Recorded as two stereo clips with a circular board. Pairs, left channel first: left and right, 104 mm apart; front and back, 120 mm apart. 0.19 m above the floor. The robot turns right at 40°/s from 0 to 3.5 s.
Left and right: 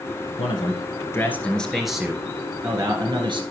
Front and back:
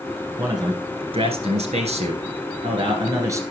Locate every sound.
0.4 s a man speaking: 125° left, 2.5 m; by 3.4 s 115° right, 2.5 m